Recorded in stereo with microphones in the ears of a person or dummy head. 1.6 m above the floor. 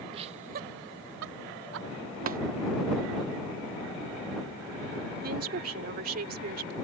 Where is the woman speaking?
50° right (ahead or behind).